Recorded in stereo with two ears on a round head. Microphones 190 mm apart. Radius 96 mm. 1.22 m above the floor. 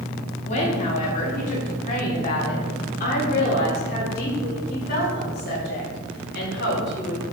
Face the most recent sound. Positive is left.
turn(degrees=55)  # may be behind; listen again after turning